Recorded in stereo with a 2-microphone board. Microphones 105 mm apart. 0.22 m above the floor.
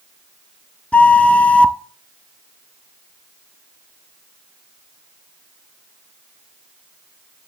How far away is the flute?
About 0.5 m.